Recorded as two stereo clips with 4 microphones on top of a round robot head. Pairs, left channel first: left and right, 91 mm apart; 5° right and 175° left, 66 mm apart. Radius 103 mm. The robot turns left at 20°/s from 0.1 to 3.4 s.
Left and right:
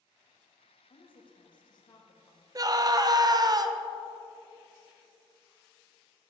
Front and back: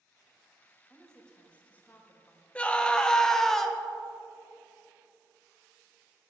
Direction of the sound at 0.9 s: 80° left.